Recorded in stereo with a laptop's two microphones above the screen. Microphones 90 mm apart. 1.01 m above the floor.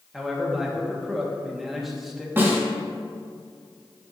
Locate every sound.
0.1 s a man speaking: centre (ahead or behind), 1.6 m
2.4 s a snare drum: 25° right (ahead or behind), 2 m